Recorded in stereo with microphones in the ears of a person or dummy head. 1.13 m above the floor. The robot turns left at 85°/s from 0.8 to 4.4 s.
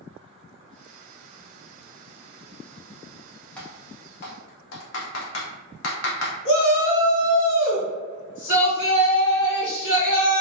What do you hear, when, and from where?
3.6 s typing on a keyboard: 5° left (ahead or behind), 0.6 m; by 6.3 s 70° left (ahead or behind), 0.6 m
6.5 s a shout: 70° left (ahead or behind), 1.5 m